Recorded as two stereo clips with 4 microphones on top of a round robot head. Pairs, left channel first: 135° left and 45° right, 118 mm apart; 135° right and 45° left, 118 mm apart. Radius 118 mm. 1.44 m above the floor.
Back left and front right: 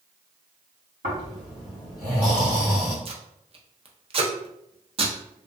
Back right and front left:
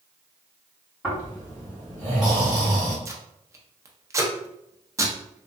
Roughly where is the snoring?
Ahead right.